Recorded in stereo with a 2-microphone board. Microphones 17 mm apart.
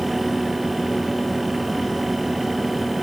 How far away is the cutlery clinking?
No cutlery clinking in this recording.